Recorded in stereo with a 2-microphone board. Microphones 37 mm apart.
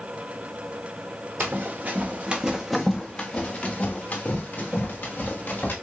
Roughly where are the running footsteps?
Right.